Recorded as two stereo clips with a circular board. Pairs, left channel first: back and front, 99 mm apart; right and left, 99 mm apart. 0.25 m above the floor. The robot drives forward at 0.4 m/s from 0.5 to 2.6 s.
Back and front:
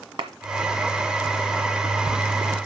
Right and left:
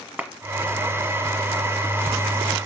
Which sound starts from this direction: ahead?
A clap, at 0.2 s.